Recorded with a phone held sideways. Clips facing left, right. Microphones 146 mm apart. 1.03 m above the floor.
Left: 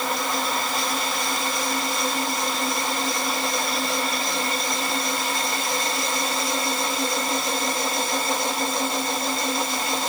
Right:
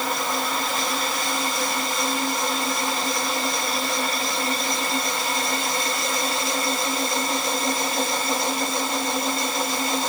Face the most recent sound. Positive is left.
No sound to turn to.